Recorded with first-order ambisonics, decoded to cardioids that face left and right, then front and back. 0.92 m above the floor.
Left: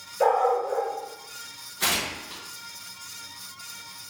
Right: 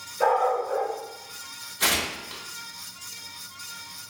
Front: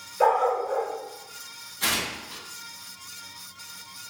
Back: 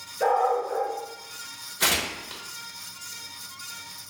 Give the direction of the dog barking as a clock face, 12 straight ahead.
11 o'clock.